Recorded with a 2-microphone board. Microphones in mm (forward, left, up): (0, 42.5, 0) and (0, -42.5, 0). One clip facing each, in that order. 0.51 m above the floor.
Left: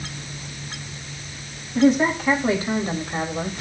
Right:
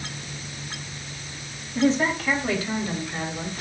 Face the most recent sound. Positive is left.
turn(degrees=45)  # may be behind; listen again after turning